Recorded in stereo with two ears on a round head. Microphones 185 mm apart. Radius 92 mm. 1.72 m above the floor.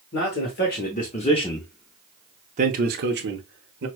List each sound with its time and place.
0.1 s a man speaking: 55° left (ahead or behind), 1.2 m; by 3.9 s 65° right (ahead or behind), 1.2 m